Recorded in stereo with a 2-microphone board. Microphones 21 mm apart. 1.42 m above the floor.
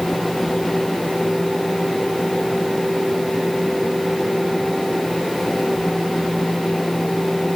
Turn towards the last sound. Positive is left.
No sound to turn to.